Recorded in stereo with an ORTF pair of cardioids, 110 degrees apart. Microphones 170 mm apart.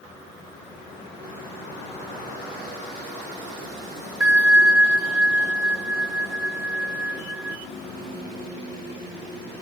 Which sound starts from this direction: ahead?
A bell, at 4.2 s.